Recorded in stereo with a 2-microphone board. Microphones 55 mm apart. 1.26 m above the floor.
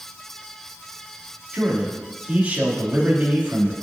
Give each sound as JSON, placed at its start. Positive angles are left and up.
{"t": 1.5, "sound": "a man speaking", "side_deg": -30, "distance_m": 2.0}